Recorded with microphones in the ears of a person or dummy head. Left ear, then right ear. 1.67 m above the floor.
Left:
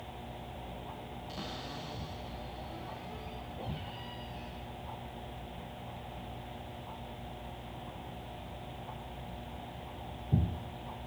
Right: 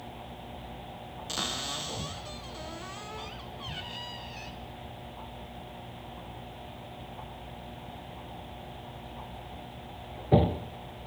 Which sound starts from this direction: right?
A cupboard door, at 1.3 s.